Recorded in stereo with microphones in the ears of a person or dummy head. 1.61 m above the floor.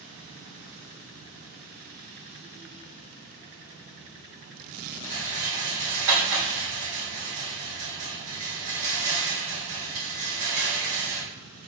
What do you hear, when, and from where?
5.0 s a rattle: 70° right (ahead or behind), 3 m